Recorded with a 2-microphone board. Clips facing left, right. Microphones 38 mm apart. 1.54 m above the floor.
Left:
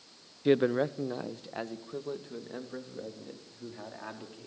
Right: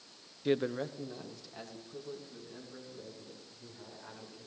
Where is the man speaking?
15° left (ahead or behind), 0.5 m; by 4.5 s 50° left (ahead or behind), 4.5 m.